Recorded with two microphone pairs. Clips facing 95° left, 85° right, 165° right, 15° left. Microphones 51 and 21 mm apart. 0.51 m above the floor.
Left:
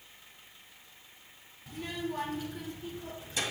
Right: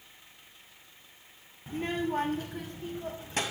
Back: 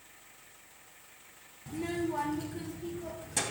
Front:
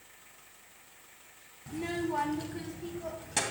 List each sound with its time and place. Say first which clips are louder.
1.7 s a child speaking: right 5 dB, even; 65° right, 0.7 m; by 3.4 s 45° right, 2.5 m